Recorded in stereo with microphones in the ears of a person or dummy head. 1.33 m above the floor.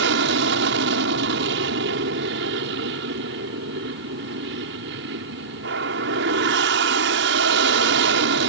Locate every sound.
0.0 s an aircraft: 60° right (ahead or behind)